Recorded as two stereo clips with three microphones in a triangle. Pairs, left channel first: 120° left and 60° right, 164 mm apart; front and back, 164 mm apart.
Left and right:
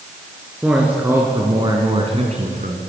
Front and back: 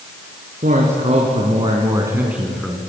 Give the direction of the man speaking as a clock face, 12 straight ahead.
5 o'clock.